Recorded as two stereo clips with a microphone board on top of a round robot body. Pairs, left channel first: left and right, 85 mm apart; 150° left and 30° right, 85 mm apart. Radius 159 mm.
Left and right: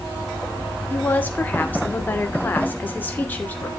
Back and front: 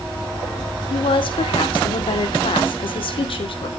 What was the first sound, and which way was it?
A woman speaking, 160° left.